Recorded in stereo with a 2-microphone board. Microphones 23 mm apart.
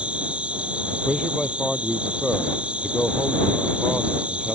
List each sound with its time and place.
0.0 s an insect: 65° right (ahead or behind)
1.1 s a man speaking: 5° right (ahead or behind)